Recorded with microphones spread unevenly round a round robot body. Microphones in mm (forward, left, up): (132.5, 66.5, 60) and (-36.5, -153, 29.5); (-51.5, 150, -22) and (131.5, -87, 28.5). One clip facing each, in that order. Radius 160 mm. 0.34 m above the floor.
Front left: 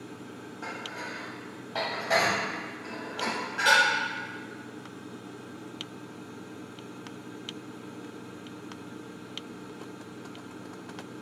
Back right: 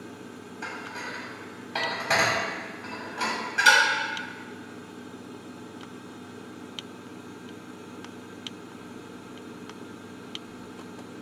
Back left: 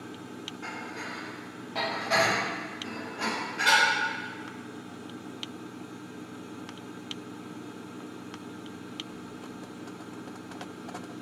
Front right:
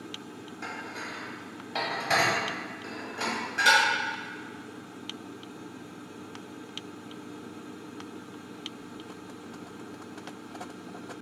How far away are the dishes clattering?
About 1.6 m.